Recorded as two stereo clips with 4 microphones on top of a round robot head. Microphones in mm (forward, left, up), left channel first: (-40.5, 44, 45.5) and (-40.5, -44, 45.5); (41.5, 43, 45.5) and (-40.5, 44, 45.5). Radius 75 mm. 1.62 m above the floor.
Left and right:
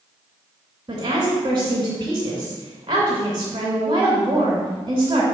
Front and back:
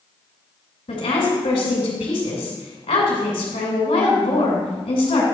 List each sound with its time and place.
0.9 s a woman speaking: 25° right, 2.5 m